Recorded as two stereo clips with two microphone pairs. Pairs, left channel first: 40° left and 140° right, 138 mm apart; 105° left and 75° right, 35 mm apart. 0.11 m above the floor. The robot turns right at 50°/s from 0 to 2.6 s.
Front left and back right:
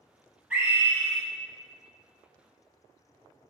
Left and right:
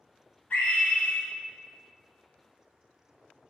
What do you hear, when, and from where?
0.5 s a scream: 135° left, 2.0 m; by 1.2 s 170° left, 2.0 m